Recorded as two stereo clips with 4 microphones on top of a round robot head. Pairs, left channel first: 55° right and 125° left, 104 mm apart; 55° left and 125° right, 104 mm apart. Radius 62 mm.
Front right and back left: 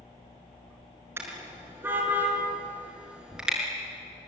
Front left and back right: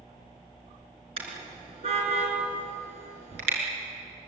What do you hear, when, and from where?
1.2 s a car horn: 165° right, 6 m; by 3.6 s 150° right, 6.5 m